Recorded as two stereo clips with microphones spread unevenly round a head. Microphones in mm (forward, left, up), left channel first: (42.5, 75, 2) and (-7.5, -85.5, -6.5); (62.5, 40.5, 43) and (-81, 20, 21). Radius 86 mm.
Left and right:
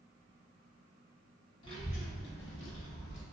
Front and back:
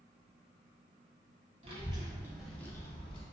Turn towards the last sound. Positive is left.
turn(degrees=60)